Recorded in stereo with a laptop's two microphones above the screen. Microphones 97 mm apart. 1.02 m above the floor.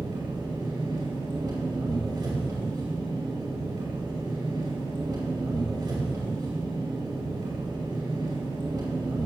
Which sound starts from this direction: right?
An engine running, at 0.0 s.